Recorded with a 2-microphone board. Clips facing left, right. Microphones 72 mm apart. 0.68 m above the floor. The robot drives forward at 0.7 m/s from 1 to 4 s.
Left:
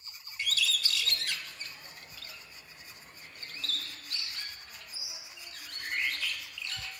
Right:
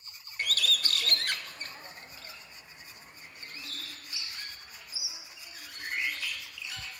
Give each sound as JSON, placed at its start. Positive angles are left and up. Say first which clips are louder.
{"t": 0.4, "sound": "a bird", "louder": "right 2 dB", "side_deg": -55, "distance_m": 0.6}